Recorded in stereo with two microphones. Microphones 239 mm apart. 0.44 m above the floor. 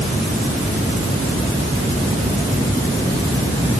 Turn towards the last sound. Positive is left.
No sound to turn to.